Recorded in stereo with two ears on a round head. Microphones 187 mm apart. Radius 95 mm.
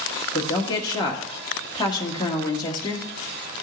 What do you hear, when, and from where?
0.3 s a woman speaking: 20° left (ahead or behind), 1.6 m